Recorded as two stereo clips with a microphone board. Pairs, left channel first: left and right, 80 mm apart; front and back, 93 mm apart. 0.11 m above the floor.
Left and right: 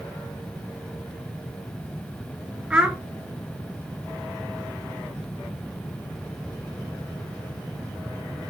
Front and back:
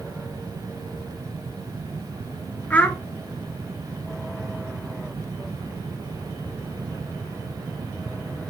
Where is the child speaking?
40° right, 0.7 m.